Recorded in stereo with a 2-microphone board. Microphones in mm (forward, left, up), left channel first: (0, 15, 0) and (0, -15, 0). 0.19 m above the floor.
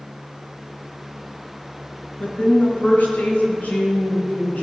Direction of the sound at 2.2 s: 60° left (ahead or behind).